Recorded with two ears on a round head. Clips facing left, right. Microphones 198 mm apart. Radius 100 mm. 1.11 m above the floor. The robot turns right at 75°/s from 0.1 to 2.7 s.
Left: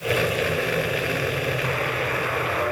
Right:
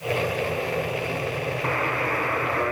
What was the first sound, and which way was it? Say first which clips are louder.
A buzzer: even; 115° right.